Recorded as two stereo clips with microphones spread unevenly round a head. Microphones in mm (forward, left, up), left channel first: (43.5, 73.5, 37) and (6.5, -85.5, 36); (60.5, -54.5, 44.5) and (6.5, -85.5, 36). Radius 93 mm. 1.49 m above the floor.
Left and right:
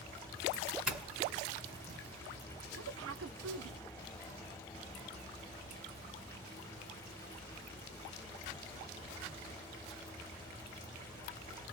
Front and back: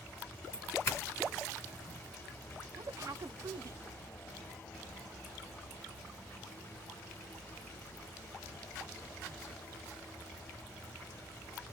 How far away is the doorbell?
About 1.2 m.